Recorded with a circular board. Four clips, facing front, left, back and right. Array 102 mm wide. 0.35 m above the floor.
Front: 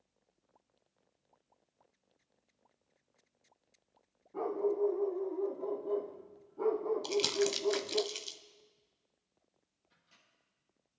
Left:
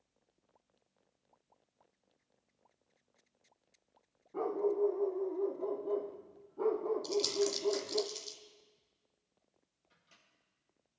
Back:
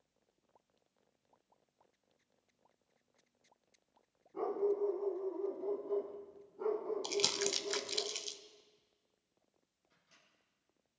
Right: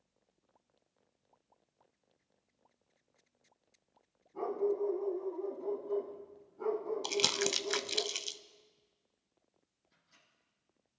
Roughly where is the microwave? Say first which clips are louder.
Left 2 dB, front 1 dB; left.